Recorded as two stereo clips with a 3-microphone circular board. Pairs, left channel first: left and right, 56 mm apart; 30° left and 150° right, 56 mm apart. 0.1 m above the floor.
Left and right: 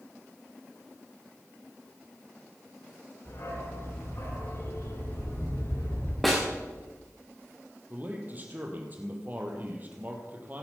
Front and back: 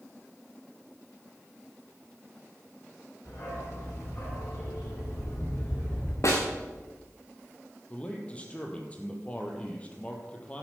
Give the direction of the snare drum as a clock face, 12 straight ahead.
12 o'clock.